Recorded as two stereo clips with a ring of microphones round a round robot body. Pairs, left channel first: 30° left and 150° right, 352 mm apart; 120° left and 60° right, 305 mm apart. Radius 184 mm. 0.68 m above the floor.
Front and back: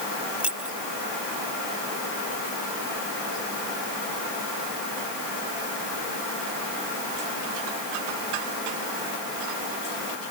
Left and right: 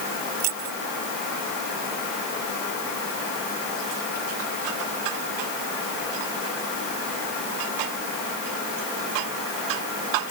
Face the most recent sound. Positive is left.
turn(degrees=-65)